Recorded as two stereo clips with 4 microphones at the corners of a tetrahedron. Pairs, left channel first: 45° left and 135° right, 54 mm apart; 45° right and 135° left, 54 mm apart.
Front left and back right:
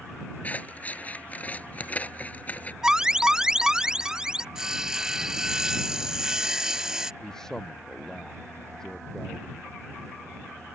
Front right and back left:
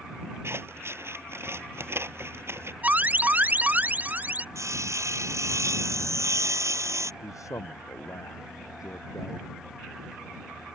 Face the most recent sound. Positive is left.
turn(degrees=-35)